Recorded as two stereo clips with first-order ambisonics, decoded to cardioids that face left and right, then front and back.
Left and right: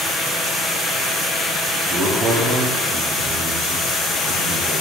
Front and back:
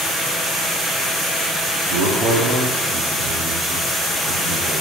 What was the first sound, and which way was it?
A man speaking, 145° right.